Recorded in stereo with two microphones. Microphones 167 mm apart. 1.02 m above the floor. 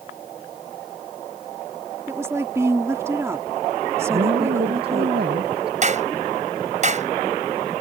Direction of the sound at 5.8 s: 45° right (ahead or behind).